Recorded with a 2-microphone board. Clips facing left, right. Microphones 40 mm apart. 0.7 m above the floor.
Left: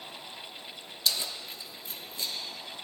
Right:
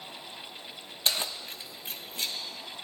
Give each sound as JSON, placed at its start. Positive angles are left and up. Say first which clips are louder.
{"t": 1.1, "sound": "keys jangling", "louder": "right 1 dB", "side_deg": -40, "distance_m": 0.6}